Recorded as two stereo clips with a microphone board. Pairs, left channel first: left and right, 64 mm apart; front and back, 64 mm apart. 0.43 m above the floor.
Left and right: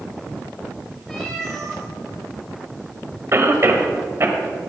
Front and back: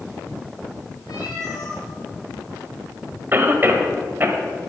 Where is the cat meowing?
10° left, 4.5 m.